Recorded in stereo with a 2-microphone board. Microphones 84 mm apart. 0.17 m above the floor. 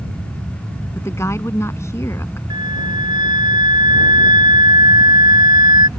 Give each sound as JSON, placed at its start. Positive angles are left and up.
{"t": 0.9, "sound": "a woman speaking", "side_deg": 35}
{"t": 2.5, "sound": "a flute", "side_deg": -60}